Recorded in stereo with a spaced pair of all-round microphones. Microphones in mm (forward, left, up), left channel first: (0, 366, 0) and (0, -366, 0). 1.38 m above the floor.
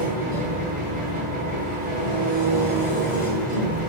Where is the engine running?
45° right (ahead or behind), 3.5 m.